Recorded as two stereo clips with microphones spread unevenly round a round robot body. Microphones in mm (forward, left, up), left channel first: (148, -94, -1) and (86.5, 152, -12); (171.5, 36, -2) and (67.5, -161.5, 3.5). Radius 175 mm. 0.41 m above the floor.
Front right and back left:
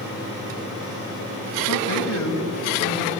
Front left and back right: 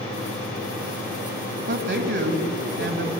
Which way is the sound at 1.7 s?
90° right.